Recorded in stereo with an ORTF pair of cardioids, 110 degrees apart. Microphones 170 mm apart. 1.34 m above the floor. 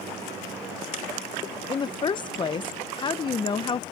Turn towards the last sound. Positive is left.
turn(degrees=25)